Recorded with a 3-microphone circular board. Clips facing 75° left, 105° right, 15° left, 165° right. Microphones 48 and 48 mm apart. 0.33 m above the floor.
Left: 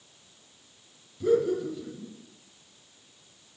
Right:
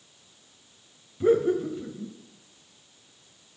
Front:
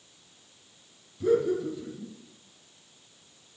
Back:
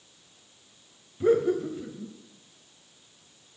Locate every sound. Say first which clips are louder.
1.2 s laughter: right 2 dB, back 2 dB; 135° right, 2 m